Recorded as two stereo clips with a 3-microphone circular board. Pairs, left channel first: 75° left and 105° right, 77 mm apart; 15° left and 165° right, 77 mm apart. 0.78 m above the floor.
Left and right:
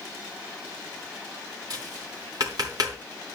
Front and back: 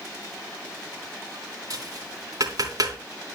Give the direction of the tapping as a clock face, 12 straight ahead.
4 o'clock.